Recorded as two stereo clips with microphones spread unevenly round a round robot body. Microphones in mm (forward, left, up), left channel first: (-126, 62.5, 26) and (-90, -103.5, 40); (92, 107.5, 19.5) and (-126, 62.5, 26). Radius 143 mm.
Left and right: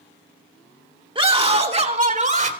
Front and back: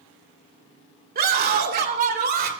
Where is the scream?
130° right, 2 m; by 2.5 s 115° right, 3 m.